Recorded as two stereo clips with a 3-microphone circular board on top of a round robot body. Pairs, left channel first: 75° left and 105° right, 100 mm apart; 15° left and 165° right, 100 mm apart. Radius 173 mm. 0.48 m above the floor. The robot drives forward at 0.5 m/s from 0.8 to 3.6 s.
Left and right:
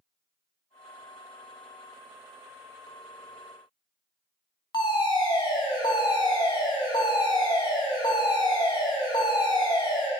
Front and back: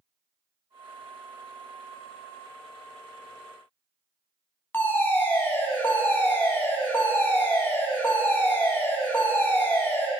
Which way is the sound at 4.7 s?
75° left.